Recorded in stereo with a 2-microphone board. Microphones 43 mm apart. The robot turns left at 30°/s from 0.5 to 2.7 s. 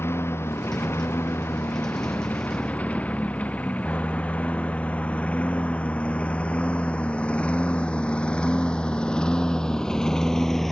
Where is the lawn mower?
75° left (ahead or behind); by 10.7 s 10° left (ahead or behind).